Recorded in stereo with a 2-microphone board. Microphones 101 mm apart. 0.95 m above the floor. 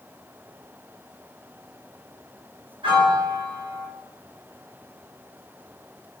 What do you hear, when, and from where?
2.8 s a piano: 60° right (ahead or behind), 1.6 m